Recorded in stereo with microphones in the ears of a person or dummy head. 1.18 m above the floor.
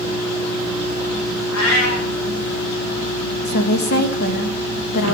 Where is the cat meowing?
80° left, 4.5 m.